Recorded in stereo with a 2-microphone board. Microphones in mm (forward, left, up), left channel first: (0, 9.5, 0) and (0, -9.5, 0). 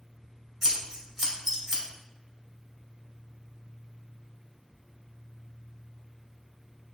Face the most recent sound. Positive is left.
turn(degrees=-15)  # may be behind; listen again after turning